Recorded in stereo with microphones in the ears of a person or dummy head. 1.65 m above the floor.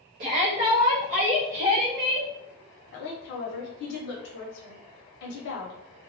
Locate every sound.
0.2 s a shout: 40° right (ahead or behind), 0.6 m; by 2.3 s 50° right (ahead or behind), 1.5 m
2.9 s a woman speaking: 55° left (ahead or behind), 0.8 m